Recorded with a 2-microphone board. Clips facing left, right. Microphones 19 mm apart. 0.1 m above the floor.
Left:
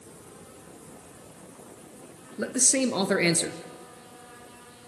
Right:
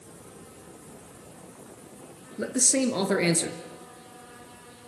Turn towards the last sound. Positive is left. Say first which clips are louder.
# even
turn(degrees=10)  # may be behind; listen again after turning